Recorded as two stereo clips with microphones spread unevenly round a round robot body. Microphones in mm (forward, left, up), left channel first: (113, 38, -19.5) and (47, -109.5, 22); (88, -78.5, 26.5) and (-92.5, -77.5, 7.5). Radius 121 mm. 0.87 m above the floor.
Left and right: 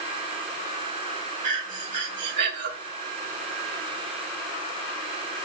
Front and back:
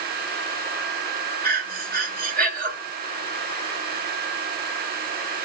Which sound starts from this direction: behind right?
Breathing, at 1.4 s.